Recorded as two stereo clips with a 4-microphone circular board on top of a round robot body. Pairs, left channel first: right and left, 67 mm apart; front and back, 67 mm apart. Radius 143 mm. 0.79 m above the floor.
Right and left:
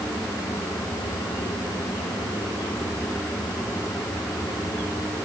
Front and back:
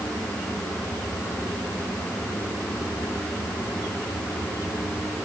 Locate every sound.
Only background noise.